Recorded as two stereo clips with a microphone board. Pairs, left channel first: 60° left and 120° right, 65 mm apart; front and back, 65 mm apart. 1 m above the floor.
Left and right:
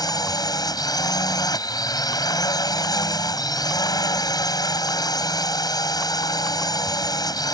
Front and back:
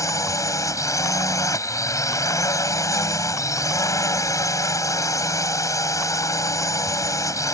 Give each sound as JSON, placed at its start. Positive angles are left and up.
{"t": 0.0, "sound": "a drone", "azimuth_deg": 40}